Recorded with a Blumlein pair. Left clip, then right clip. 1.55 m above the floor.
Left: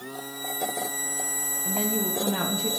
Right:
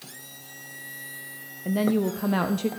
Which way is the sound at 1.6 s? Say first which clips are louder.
Right 6 dB; 20° right.